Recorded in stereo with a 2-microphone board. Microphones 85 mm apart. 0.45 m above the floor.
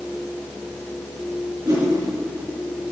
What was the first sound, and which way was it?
A whoosh, 55° right (ahead or behind).